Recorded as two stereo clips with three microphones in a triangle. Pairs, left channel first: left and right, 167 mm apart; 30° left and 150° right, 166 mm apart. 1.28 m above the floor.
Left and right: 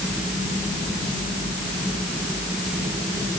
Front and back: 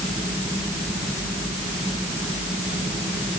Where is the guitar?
No guitar in this recording.